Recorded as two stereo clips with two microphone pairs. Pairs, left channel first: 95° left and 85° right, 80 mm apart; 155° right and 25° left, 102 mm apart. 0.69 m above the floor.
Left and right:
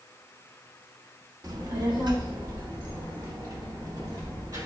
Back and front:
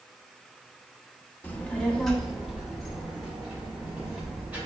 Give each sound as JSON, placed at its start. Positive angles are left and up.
{"t": 1.4, "sound": "a child speaking", "azimuth_deg": -90, "distance_m": 0.7}